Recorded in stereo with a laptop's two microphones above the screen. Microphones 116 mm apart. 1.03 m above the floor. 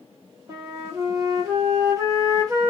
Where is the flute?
30° right (ahead or behind), 0.6 m.